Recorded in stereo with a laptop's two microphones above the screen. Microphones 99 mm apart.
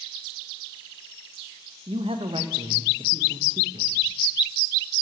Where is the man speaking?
70° right (ahead or behind), 0.8 m.